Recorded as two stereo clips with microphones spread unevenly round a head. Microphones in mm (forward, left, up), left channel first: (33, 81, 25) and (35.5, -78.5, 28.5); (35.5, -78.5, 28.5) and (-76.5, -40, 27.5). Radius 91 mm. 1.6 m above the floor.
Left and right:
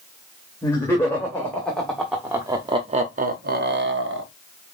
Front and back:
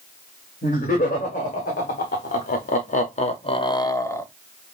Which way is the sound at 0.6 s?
20° left.